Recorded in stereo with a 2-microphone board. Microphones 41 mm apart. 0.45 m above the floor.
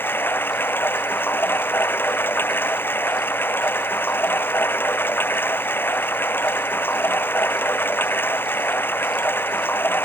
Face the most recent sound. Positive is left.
turn(degrees=55)  # may be behind; listen again after turning